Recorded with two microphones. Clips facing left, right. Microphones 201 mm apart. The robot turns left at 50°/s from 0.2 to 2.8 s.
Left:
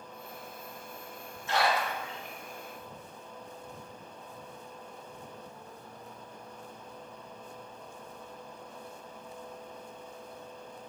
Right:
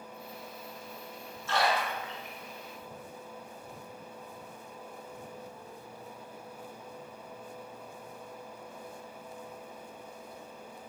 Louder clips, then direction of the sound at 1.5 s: Left 1 dB; 15° left (ahead or behind).